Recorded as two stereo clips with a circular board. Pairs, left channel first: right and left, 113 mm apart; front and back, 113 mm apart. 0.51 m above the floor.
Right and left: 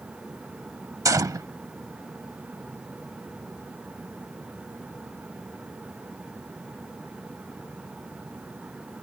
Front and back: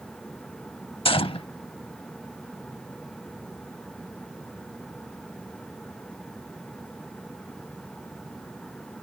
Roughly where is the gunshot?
Ahead left.